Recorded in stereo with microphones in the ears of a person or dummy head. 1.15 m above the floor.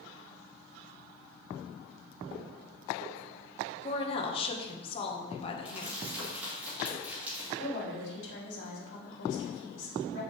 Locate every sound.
3.8 s a woman speaking: 30° left (ahead or behind), 1.1 m
5.7 s crumpling: 10° right (ahead or behind), 3 m
7.6 s a woman speaking: 65° left (ahead or behind), 2.5 m